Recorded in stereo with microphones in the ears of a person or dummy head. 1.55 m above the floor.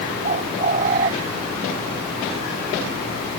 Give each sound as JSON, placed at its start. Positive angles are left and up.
{"t": 0.2, "sound": "a bird", "side_deg": -45}